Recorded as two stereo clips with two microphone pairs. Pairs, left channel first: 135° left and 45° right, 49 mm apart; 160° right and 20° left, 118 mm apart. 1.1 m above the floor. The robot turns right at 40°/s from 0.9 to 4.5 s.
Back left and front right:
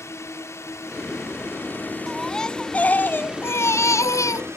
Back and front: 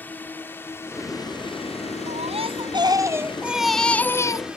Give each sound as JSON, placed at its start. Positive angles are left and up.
{"t": 0.0, "sound": "a drone", "azimuth_deg": 125}
{"t": 2.1, "sound": "a baby crying", "azimuth_deg": 45}